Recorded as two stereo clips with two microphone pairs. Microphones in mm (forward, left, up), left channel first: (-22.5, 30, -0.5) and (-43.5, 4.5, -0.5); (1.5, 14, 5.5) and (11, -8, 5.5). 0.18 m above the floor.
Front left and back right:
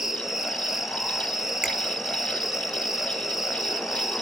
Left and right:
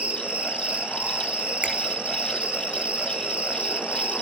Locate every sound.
0.0 s an insect: 50° right, 2 m
1.6 s a finger snap: 65° right, 4 m